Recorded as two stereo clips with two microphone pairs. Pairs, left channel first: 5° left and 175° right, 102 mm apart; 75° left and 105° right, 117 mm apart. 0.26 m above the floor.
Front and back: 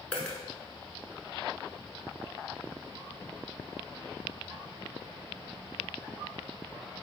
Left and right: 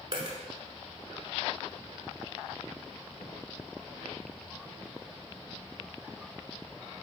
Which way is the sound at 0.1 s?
70° right.